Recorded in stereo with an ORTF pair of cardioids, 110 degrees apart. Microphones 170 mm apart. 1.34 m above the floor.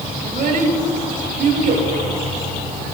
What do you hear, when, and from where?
0.2 s a child speaking: 50° right, 2 m